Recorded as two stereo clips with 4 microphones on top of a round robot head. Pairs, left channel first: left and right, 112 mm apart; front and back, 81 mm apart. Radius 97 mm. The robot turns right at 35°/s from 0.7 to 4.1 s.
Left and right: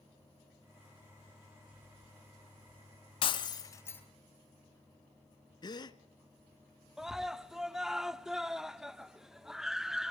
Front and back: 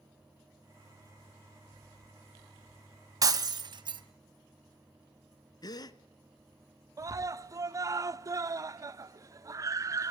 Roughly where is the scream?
Behind.